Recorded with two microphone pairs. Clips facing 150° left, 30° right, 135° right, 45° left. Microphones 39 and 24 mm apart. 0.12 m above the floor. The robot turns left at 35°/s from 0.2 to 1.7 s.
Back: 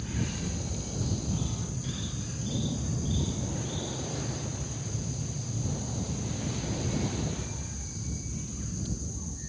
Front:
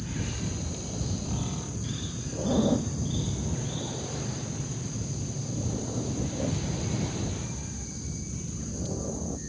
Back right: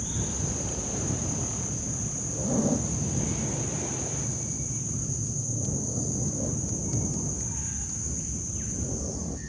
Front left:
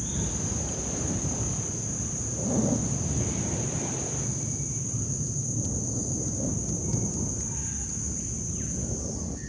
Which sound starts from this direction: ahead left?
An aircraft, at 0.0 s.